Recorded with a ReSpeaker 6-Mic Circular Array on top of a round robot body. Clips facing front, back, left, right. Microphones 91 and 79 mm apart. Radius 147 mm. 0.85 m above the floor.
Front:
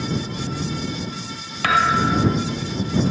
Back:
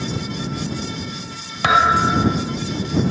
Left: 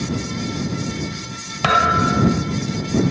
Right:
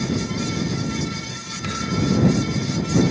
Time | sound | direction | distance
1.6 | a thud | 110° left | ?